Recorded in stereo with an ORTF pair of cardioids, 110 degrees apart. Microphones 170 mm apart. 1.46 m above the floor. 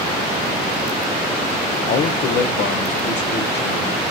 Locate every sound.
1.9 s a man speaking: 50° left, 0.6 m; by 4.0 s 80° left, 1.8 m